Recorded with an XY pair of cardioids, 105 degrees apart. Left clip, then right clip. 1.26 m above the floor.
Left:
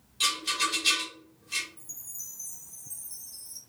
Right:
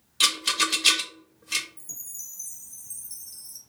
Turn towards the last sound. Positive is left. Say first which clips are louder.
# right 3 dB
turn(degrees=-45)